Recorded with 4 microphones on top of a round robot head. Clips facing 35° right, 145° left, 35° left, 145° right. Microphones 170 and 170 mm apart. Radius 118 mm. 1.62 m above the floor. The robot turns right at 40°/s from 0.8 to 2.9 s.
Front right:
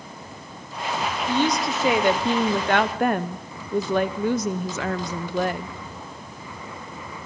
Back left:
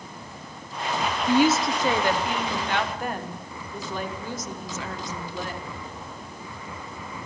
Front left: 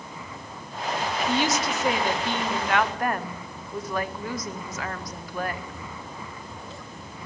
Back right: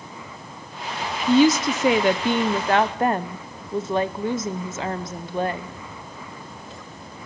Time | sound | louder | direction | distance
1.3 | a woman speaking | back left 3 dB, back right 11 dB | 140° right | 0.9 m